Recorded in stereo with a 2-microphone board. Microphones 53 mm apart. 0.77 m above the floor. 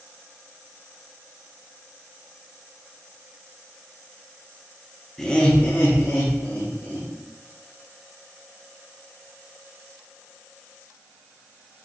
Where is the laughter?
10° left (ahead or behind), 0.8 m; by 7.1 s 60° left (ahead or behind), 1.7 m.